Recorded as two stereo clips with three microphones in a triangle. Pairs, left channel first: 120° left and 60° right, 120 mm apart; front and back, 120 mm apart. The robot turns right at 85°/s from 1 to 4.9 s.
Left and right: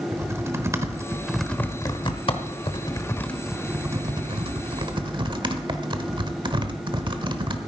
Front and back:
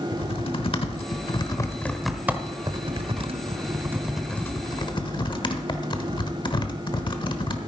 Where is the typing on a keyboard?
Straight ahead, 1.0 m; by 7.6 s 30° right, 1.0 m.